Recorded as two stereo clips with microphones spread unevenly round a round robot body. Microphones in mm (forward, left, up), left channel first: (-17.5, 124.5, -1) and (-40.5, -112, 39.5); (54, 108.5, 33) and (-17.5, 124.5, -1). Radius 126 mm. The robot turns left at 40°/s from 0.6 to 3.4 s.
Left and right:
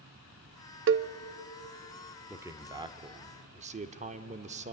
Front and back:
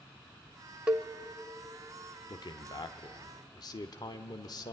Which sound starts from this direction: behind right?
A cowbell, at 0.9 s.